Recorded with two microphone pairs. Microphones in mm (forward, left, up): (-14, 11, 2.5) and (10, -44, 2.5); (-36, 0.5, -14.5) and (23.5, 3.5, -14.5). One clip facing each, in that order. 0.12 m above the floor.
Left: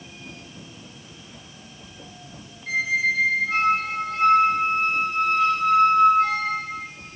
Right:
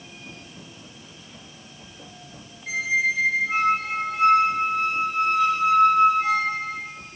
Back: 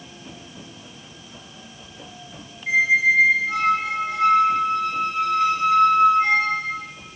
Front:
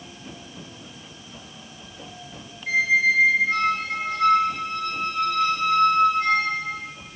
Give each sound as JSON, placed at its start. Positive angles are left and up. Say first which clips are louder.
{"t": 2.7, "sound": "a squeak", "louder": "left 1 dB, back 2 dB", "azimuth_deg": -130, "distance_m": 0.9}